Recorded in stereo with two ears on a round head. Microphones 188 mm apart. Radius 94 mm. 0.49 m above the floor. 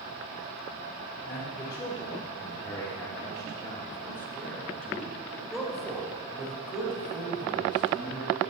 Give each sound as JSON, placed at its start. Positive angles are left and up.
{"t": 1.2, "sound": "a man speaking", "side_deg": 15, "distance_m": 1.8}